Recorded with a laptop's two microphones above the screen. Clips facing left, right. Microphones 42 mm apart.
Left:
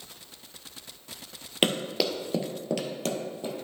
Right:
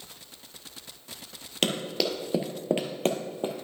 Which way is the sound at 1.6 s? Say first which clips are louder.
Left 1 dB; 20° left (ahead or behind).